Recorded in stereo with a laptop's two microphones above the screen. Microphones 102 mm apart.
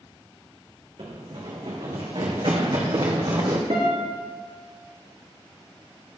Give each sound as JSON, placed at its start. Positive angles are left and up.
{"t": 1.0, "sound": "running footsteps", "side_deg": -70, "distance_m": 2.5}
{"t": 3.7, "sound": "a guitar", "side_deg": -85, "distance_m": 4.5}